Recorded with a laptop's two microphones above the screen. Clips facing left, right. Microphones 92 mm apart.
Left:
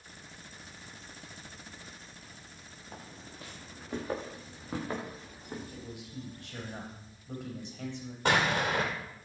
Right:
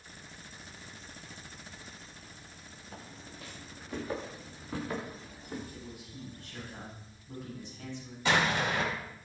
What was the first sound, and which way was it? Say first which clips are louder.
Footsteps: even; 40° left (ahead or behind).